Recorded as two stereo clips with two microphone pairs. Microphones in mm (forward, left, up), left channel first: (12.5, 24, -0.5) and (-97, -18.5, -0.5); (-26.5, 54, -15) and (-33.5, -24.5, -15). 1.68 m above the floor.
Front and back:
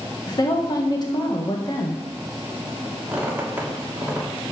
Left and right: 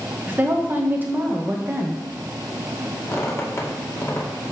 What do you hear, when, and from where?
0.3 s a woman speaking: 30° right, 1.8 m
3.1 s a squeak: 130° left, 2 m